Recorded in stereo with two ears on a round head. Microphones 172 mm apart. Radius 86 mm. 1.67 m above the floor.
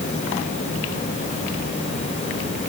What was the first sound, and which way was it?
Only background noise.